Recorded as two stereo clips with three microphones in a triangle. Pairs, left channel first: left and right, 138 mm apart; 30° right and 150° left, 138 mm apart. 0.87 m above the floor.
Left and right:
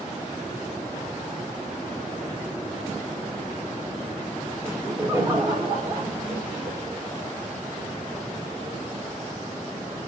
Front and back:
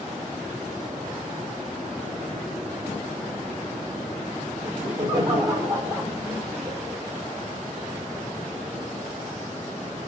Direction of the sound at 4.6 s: 155° right.